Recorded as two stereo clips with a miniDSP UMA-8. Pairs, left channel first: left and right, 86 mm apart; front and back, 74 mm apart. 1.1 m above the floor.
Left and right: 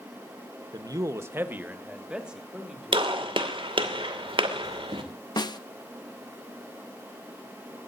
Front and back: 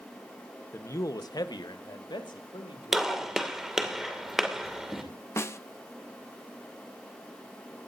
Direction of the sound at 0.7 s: 55° right.